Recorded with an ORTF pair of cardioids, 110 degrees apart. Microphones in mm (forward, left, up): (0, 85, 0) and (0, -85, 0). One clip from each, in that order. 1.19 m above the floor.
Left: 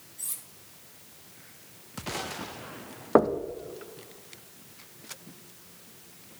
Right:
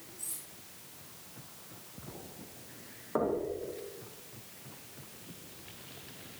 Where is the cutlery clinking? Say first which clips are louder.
Left 5 dB; 45° left, 2 m.